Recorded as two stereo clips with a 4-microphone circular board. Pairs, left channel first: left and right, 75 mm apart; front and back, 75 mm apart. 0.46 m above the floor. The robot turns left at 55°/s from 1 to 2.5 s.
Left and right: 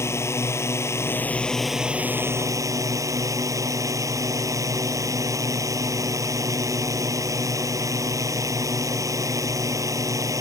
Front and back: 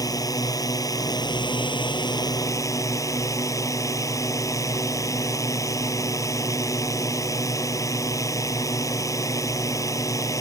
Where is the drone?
40° left; by 10.4 s 45° right.